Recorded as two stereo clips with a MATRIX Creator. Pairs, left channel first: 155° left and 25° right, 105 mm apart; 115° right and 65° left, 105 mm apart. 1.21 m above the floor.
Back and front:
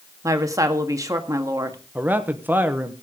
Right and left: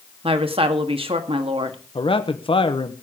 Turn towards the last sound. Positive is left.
turn(degrees=-95)